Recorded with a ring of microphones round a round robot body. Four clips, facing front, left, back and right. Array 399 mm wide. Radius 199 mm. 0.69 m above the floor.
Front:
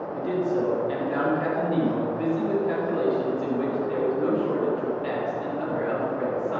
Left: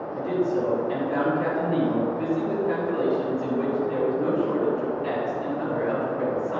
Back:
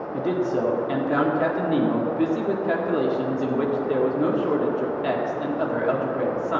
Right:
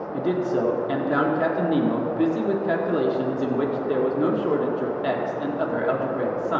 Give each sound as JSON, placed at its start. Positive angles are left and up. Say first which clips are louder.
{"t": 0.1, "sound": "a man speaking", "louder": "right 1 dB, back 2 dB", "azimuth_deg": -130, "distance_m": 2.0}